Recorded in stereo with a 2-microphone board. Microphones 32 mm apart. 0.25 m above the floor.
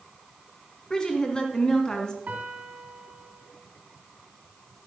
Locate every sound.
0.9 s a woman speaking: 30° left (ahead or behind), 2.5 m
2.3 s a piano: 55° right (ahead or behind), 2.5 m